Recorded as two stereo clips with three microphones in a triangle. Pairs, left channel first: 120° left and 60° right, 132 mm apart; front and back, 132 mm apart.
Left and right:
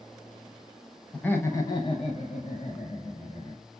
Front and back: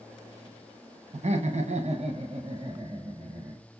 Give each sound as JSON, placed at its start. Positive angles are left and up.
{"t": 1.1, "sound": "laughter", "azimuth_deg": -160, "distance_m": 0.9}